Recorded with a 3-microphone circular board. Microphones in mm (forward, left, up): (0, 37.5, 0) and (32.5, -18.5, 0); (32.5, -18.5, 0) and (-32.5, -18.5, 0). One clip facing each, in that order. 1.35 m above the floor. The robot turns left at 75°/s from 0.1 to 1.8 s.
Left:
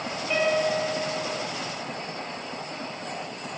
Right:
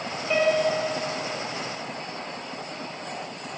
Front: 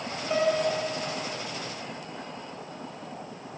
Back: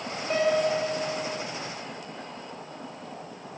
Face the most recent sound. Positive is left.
turn(degrees=105)